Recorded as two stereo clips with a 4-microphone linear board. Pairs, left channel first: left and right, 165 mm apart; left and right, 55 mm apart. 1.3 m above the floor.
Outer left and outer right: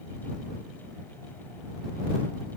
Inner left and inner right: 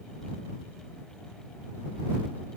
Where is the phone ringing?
No phone ringing in this recording.